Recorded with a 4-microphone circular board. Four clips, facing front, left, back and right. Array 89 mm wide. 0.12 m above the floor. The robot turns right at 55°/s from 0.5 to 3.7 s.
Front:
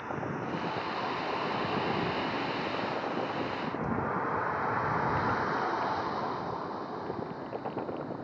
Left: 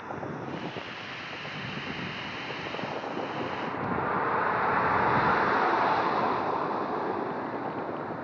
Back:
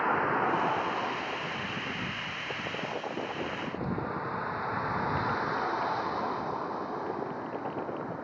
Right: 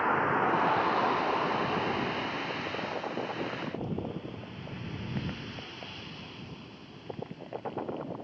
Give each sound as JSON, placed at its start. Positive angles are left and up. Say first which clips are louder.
{"t": 0.0, "sound": "a vehicle", "louder": "right 10 dB, back 8 dB", "azimuth_deg": -135}